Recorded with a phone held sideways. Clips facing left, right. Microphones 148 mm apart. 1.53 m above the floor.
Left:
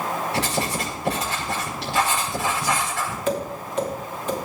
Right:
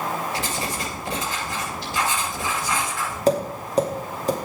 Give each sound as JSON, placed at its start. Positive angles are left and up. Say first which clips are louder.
{"t": 0.3, "sound": "writing", "louder": "left 3 dB", "side_deg": 65, "distance_m": 5.5}
{"t": 3.3, "sound": "tapping", "louder": "right 7 dB", "side_deg": -35, "distance_m": 2.5}